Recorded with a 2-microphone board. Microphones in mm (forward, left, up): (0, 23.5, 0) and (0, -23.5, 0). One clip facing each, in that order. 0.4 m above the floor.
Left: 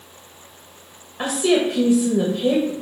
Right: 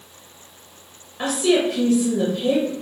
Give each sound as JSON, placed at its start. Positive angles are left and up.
{"t": 1.2, "sound": "a woman speaking", "side_deg": 15, "distance_m": 1.5}